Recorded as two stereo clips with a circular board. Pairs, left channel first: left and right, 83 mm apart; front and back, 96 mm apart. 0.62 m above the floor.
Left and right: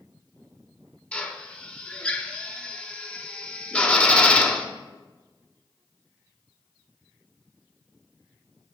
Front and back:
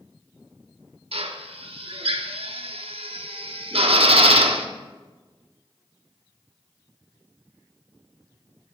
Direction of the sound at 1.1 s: 165° left.